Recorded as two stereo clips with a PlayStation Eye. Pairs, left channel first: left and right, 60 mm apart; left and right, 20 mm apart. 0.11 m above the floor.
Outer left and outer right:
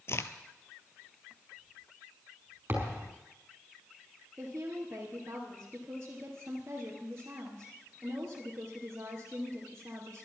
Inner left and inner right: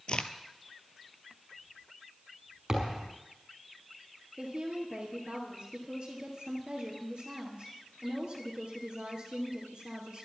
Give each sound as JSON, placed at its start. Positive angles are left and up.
{"t": 0.1, "sound": "a crack", "side_deg": 45, "distance_m": 0.9}
{"t": 2.7, "sound": "a thud", "side_deg": -35, "distance_m": 5.5}
{"t": 4.4, "sound": "a woman speaking", "side_deg": -45, "distance_m": 2.5}